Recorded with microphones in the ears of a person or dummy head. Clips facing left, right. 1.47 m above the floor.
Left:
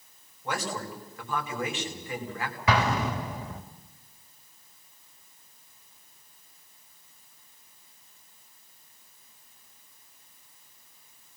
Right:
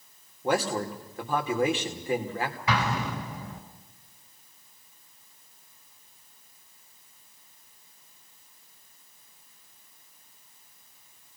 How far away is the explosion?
About 2.5 m.